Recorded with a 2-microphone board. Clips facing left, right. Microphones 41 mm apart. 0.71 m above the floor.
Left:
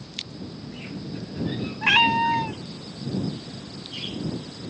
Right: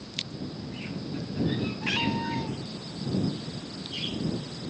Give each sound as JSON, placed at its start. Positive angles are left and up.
{"t": 1.8, "sound": "a cat meowing", "side_deg": 80}